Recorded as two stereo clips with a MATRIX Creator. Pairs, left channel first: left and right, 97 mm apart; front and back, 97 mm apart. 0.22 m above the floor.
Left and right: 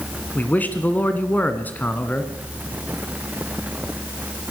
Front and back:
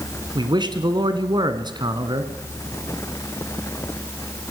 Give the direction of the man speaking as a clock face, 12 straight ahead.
7 o'clock.